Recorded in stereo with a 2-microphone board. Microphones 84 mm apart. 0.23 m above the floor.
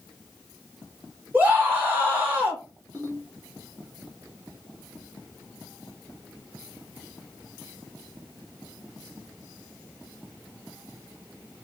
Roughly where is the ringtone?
Right.